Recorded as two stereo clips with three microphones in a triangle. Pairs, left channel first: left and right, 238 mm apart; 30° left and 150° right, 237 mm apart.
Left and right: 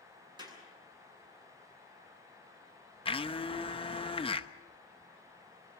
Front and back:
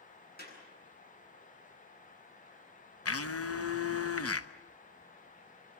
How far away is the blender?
About 0.8 m.